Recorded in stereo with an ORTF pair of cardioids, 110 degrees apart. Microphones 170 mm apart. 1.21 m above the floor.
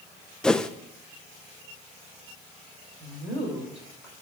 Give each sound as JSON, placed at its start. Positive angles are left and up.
{"t": 0.4, "sound": "a whoosh", "azimuth_deg": 5, "distance_m": 0.6}
{"t": 3.0, "sound": "a woman speaking", "azimuth_deg": -5, "distance_m": 6.0}